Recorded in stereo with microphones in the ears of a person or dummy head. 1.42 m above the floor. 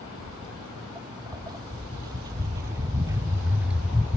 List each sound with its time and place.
0.2 s footsteps: 25° right (ahead or behind); by 4.2 s 5° left (ahead or behind)